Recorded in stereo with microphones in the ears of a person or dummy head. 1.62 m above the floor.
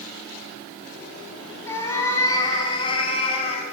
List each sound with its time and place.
1.7 s a cat meowing: 15° left (ahead or behind), 6.5 m; by 3.6 s 35° left (ahead or behind), 5.5 m